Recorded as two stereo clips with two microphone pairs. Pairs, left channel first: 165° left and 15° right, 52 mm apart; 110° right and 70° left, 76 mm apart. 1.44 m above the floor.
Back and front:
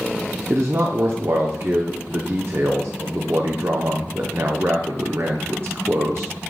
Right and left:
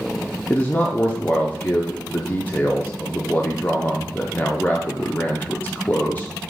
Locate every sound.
0.5 s a man speaking: 45° right, 0.7 m